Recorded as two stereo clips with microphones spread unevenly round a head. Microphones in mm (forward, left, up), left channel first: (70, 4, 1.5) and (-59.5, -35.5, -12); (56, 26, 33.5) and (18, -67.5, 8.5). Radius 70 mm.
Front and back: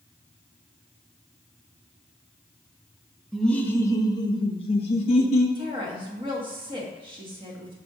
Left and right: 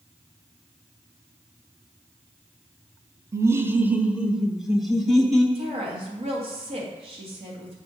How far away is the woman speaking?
About 1.9 m.